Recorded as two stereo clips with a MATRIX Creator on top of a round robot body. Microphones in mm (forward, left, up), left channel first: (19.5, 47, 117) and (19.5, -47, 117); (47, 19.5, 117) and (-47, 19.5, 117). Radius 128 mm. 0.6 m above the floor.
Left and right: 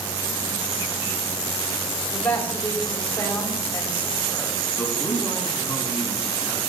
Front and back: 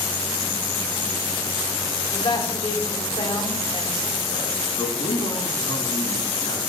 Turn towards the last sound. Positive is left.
turn(degrees=0)